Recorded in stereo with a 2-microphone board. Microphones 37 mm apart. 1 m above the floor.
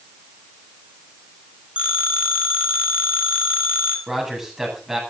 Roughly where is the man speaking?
Centre.